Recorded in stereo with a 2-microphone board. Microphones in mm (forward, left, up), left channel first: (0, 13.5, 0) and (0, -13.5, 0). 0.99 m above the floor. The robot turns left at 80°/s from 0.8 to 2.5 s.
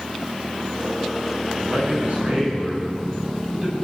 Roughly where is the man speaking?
Right.